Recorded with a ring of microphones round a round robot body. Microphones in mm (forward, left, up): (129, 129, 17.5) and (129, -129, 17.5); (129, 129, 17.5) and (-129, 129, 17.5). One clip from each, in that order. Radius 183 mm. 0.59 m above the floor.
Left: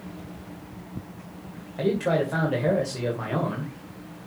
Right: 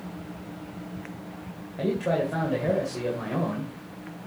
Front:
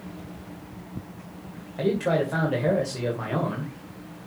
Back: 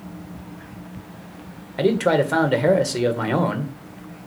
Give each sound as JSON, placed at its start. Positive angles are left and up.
{"t": 1.8, "sound": "a man speaking", "azimuth_deg": 165, "distance_m": 2.0}